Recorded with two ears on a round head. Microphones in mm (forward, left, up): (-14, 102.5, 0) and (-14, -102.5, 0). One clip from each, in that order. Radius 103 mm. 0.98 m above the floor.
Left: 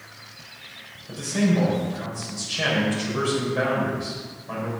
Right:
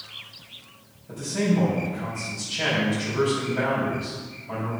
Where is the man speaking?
75° left (ahead or behind), 4.5 m.